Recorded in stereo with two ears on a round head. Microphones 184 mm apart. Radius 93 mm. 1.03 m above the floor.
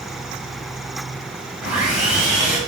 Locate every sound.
1.6 s sawing: 5° right (ahead or behind), 0.7 m